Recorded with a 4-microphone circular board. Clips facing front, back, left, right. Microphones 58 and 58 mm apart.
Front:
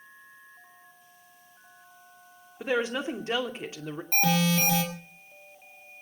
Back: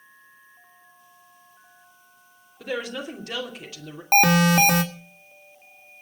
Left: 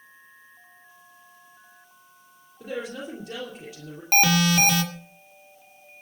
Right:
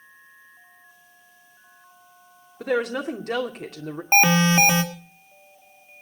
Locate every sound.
2.6 s a woman speaking: 65° right, 2.5 m
4.1 s an alarm: 155° right, 1.9 m